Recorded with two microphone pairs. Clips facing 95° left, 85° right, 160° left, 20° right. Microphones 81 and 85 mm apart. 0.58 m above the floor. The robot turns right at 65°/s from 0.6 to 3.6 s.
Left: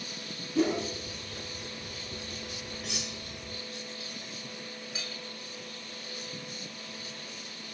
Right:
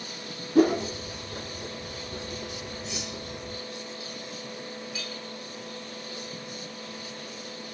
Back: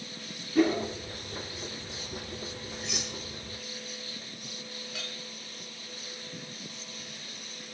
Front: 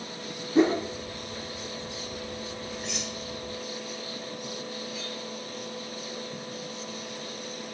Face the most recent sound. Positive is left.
turn(degrees=155)